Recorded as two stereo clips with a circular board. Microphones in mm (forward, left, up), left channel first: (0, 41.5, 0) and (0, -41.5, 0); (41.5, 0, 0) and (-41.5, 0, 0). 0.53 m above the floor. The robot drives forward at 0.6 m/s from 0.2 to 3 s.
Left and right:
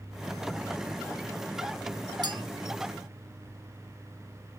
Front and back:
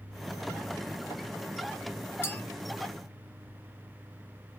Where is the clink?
60° right, 0.6 m; by 2.4 s 70° right, 0.6 m.